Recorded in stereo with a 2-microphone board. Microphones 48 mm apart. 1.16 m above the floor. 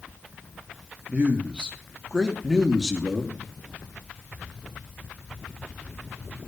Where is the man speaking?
25° right (ahead or behind), 2.5 m; by 3.4 s centre (ahead or behind), 3 m.